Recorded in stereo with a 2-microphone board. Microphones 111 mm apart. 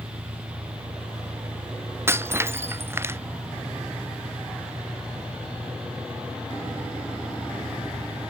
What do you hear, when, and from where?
0.0 s an engine running: 70° right (ahead or behind)
2.1 s breaking glass: 25° right (ahead or behind)